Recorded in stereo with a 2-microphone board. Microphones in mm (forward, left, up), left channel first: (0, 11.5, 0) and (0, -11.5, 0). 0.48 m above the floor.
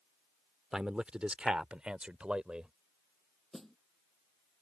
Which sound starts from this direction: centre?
A snare drum, at 3.5 s.